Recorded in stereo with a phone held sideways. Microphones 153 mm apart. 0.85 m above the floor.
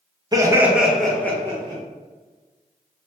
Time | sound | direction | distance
0.3 | laughter | 25° right (ahead or behind) | 0.7 m